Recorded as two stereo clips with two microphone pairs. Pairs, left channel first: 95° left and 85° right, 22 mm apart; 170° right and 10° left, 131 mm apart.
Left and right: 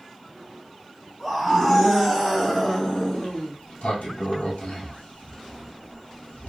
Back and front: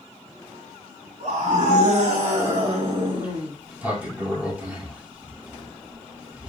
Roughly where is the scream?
Ahead.